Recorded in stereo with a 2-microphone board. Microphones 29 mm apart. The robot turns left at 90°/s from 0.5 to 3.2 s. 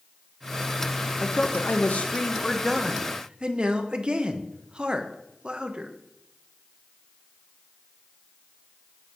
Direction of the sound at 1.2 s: 135° left.